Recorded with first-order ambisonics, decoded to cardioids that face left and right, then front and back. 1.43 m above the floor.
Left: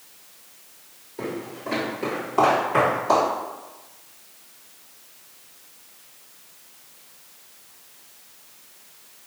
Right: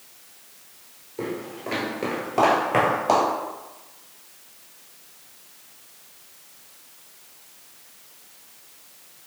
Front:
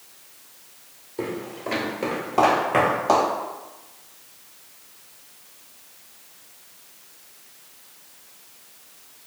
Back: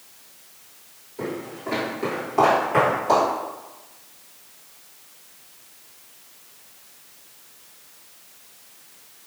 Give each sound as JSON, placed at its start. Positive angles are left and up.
{"t": 1.2, "sound": "footsteps", "azimuth_deg": -5, "distance_m": 1.5}